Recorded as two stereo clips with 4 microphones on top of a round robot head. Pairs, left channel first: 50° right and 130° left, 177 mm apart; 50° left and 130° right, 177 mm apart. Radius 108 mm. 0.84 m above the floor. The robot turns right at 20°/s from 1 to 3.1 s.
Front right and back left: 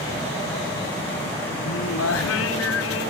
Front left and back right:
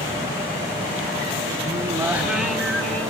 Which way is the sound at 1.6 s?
60° right.